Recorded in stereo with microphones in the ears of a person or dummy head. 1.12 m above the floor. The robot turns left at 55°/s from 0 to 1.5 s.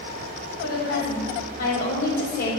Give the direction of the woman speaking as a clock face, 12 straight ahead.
8 o'clock.